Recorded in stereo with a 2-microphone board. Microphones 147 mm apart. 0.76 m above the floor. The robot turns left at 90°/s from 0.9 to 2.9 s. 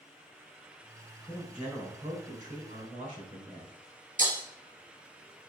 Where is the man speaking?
25° left, 3.5 m; by 3.8 s 125° right, 3.5 m.